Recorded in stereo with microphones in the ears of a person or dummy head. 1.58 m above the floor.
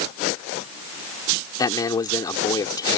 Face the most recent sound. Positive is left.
turn(degrees=15)  # may be behind; listen again after turning